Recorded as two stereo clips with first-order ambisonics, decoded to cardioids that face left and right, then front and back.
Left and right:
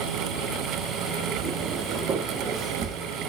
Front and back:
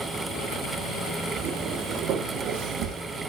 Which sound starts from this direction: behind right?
Footsteps, at 1.4 s.